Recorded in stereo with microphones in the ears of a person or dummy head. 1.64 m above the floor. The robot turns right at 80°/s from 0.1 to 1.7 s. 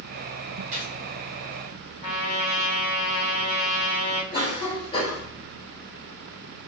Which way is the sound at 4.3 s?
35° left (ahead or behind).